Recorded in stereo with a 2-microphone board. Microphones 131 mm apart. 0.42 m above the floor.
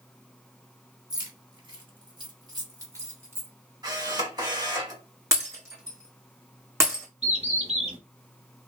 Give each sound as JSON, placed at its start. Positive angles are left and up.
{"t": 1.1, "sound": "keys jangling", "side_deg": -30, "distance_m": 1.1}
{"t": 3.8, "sound": "a camera shutter", "side_deg": -30, "distance_m": 2.0}
{"t": 5.3, "sound": "breaking glass", "side_deg": -20, "distance_m": 1.4}
{"t": 7.2, "sound": "a bird", "side_deg": -50, "distance_m": 0.9}